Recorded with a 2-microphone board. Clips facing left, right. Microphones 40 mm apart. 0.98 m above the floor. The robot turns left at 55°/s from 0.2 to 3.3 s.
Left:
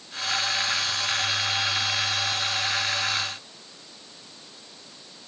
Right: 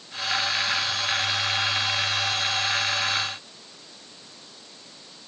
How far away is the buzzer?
No buzzer in this recording.